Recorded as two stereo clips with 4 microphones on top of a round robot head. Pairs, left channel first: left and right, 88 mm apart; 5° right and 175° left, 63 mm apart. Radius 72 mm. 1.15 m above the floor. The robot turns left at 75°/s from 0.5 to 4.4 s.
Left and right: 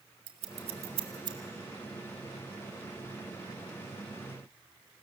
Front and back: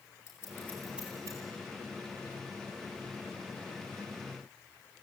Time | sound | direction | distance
0.3 | scissors | 70° right | 2 m